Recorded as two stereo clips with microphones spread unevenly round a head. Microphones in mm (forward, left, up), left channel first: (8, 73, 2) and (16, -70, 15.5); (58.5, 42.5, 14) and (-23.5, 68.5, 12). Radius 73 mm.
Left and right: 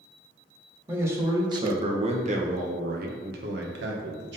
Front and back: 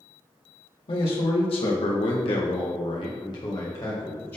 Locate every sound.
0.9 s a man speaking: 10° right, 1.5 m; by 4.4 s 95° right, 1.6 m